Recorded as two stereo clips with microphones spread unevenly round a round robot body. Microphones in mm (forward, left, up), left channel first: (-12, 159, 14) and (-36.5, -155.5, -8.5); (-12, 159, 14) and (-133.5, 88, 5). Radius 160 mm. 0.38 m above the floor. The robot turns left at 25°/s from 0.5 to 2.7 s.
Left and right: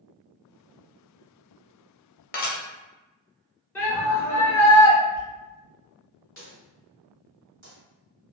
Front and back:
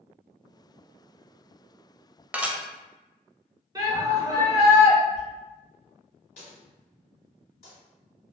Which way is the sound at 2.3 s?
135° left.